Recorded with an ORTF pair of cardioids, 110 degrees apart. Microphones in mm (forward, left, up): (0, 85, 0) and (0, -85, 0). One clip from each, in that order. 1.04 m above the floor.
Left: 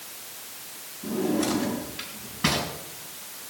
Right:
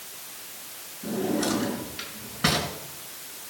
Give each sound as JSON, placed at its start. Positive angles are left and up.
{"t": 1.0, "sound": "a drawer", "azimuth_deg": -15, "distance_m": 5.0}